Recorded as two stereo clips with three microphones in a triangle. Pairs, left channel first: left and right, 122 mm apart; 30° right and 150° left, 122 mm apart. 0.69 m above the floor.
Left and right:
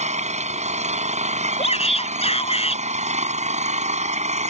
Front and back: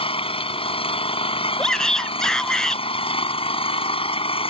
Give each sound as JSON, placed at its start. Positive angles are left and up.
{"t": 0.0, "sound": "an engine running", "azimuth_deg": -70}
{"t": 1.6, "sound": "a shout", "azimuth_deg": 55}